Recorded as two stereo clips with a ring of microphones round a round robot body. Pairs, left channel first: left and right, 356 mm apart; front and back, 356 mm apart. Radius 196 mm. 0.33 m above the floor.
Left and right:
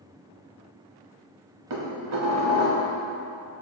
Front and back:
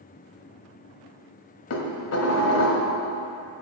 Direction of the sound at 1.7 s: 45° right.